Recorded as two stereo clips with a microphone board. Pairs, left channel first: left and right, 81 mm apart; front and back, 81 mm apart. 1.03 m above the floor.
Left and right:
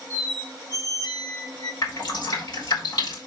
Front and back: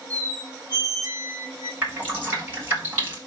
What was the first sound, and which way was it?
A squeak, 125° left.